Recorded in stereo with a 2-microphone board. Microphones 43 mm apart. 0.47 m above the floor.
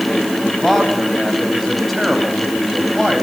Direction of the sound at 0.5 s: Centre (ahead or behind).